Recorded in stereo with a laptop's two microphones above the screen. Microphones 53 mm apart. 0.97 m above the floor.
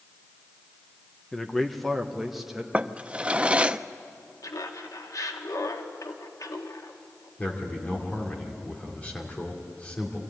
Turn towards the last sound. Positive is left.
turn(degrees=30)  # may be behind; listen again after turning